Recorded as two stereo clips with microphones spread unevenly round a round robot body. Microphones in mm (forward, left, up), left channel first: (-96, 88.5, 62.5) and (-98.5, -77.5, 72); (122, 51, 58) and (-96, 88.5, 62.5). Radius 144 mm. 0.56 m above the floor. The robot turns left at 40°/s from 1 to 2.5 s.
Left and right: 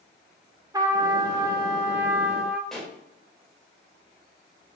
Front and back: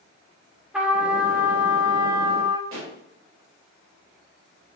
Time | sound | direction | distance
0.7 | a trumpet | 110° right | 1.3 m
2.7 | a pop | 175° left | 3 m